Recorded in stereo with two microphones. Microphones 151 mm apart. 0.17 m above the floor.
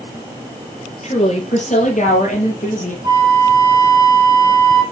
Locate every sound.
1.0 s a woman speaking: 50° left (ahead or behind), 3 m; by 2.9 s 60° left (ahead or behind), 4 m
3.0 s a flute: 30° right (ahead or behind), 1.9 m